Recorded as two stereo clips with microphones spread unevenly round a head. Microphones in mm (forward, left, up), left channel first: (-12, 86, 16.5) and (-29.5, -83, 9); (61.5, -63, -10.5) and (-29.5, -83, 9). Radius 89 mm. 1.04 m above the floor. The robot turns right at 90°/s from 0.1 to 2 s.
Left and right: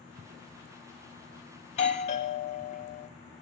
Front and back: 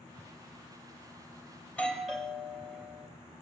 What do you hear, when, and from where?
1.6 s a doorbell: 50° left, 0.9 m; by 3.1 s 85° left, 0.9 m